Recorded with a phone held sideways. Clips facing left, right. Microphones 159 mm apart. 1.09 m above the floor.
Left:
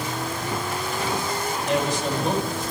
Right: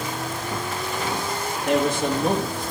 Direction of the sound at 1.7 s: 55° right (ahead or behind).